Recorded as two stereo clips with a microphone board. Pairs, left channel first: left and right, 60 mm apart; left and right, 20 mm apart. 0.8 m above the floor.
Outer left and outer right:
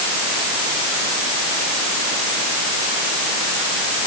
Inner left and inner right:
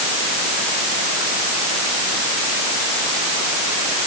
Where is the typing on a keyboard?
No typing on a keyboard in this recording.